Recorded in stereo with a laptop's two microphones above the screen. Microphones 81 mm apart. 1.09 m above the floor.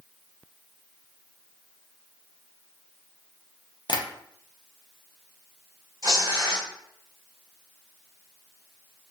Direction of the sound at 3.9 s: 65° left (ahead or behind).